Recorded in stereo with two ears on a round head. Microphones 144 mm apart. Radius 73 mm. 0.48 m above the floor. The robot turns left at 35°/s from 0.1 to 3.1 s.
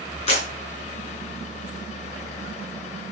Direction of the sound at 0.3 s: 45° left (ahead or behind).